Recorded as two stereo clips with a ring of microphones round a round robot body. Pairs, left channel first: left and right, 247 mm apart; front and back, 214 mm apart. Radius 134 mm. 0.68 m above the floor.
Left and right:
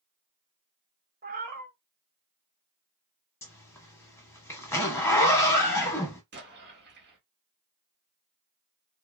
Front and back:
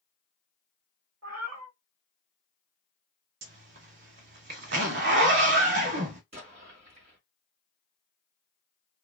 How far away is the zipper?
About 0.7 m.